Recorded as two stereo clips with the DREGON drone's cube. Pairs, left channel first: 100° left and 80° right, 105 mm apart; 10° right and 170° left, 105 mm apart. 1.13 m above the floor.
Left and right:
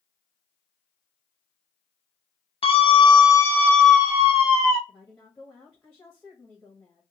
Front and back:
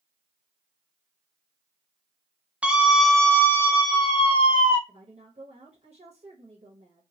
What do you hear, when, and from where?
2.6 s a scream: 90° left, 1.0 m; by 4.8 s 30° right, 1.0 m
4.9 s a woman speaking: 170° left, 1.1 m